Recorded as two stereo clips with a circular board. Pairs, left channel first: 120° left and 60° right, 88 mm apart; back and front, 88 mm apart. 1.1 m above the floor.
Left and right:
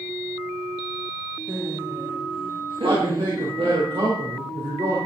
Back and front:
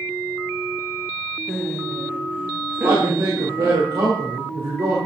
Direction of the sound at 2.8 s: 35° right.